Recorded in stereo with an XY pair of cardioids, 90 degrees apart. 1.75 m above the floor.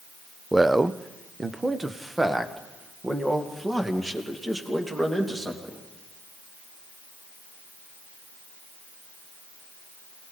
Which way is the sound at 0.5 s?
15° right.